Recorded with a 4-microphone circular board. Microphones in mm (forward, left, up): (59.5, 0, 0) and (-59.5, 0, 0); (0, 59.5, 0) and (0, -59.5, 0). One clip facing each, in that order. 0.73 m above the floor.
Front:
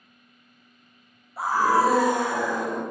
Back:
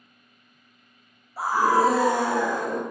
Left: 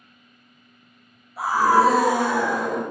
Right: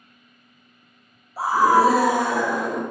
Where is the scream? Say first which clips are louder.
Even, right 1 dB; 95° right, 0.6 m; by 2.8 s 155° left, 0.8 m.